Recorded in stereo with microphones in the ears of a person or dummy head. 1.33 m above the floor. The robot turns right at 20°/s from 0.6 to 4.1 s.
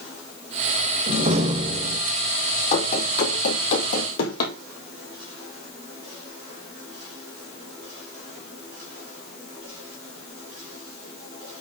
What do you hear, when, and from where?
1.1 s a door slam: 50° right (ahead or behind), 1.1 m; by 2.0 s 35° right (ahead or behind), 1.1 m
2.7 s running footsteps: 50° left (ahead or behind), 3 m; by 4.5 s 55° left (ahead or behind), 2.5 m